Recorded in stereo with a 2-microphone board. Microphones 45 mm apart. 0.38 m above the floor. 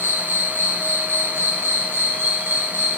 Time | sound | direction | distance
0.0 | an insect | 70° right (ahead or behind) | 0.9 m